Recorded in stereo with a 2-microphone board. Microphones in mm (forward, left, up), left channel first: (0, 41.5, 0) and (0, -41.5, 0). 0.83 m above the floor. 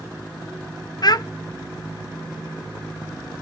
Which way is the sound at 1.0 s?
55° left (ahead or behind).